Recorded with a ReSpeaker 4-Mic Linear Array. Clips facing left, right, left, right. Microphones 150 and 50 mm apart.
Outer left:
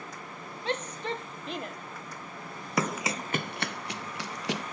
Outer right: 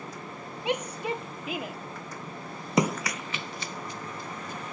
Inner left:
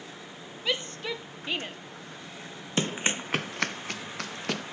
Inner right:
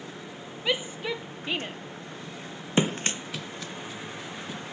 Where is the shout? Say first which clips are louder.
Outer right 3 dB, inner right 2 dB; 15° right (ahead or behind); by 1.8 s 5° right (ahead or behind).